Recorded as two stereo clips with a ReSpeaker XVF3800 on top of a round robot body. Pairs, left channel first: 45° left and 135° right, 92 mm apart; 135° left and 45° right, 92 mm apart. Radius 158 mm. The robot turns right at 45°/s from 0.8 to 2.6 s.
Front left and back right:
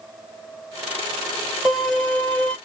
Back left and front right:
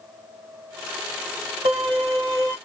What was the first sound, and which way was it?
A violin, 55° right.